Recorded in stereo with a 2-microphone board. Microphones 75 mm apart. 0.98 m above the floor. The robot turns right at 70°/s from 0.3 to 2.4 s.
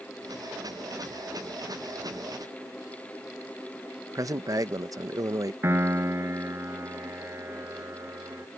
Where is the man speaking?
50° right (ahead or behind).